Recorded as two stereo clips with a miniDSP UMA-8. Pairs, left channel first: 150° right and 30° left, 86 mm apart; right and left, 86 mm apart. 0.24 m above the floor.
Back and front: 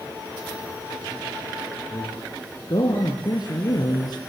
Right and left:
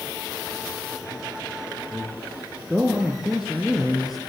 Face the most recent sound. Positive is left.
turn(degrees=175)